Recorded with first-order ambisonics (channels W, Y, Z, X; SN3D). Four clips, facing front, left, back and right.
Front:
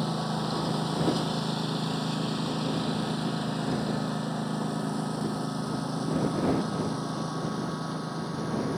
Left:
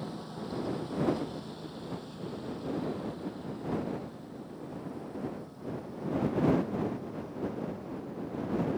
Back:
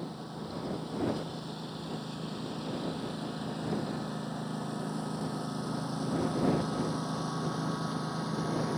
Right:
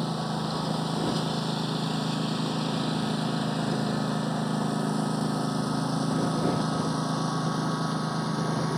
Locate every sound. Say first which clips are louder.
0.0 s a lawn mower: right 10 dB, front 10 dB; 45° right; by 8.8 s 90° right